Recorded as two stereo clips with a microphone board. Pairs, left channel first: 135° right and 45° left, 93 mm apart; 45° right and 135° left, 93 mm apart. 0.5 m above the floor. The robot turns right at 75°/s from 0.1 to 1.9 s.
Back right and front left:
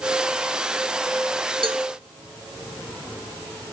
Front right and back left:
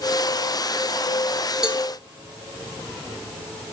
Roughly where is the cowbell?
Ahead left.